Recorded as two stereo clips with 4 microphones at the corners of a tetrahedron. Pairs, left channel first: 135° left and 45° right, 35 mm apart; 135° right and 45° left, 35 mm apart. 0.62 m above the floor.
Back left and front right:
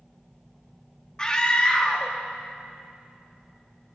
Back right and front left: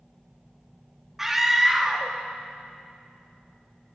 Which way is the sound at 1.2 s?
110° left.